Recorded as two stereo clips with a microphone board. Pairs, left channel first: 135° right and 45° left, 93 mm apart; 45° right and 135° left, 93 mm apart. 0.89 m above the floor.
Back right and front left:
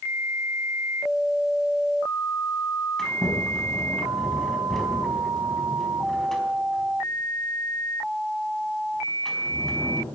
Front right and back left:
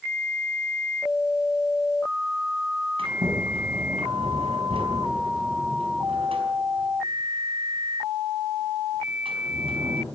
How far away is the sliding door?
About 4.5 m.